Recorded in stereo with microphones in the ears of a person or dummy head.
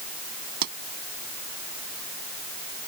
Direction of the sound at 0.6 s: 55° right (ahead or behind).